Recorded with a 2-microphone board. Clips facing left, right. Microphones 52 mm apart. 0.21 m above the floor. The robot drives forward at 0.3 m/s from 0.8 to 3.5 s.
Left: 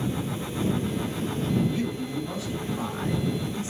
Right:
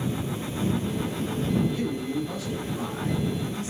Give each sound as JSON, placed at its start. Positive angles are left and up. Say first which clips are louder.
{"t": 1.7, "sound": "a man speaking", "louder": "even", "side_deg": 25, "distance_m": 1.8}